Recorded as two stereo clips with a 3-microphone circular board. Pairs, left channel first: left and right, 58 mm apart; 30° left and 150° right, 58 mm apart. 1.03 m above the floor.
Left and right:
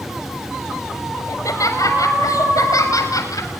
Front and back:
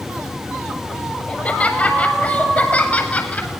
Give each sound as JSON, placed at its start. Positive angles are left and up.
{"t": 1.3, "sound": "laughter", "azimuth_deg": 95, "distance_m": 7.0}